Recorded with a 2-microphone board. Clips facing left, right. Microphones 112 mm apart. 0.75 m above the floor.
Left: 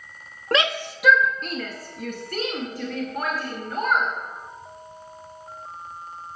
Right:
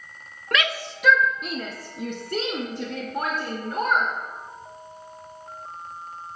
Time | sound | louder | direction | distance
0.5 | a shout | left 3 dB | 30° left (ahead or behind) | 0.6 m